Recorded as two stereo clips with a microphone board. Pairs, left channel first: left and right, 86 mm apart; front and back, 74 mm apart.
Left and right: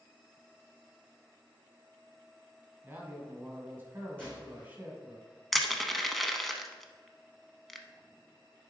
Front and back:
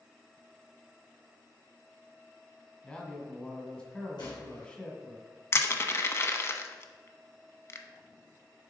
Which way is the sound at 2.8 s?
55° right.